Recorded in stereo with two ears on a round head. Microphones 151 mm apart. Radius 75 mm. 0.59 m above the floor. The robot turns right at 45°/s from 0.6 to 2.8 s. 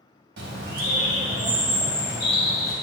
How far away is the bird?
About 2.5 m.